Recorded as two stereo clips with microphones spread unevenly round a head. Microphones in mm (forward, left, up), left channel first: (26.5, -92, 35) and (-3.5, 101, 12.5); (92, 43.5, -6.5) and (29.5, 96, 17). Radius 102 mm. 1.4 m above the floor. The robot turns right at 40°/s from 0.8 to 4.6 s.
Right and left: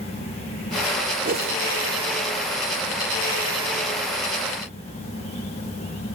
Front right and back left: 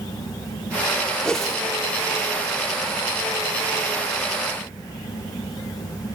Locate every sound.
1.2 s a whoosh: 50° left, 1.4 m; by 1.6 s 65° left, 1.4 m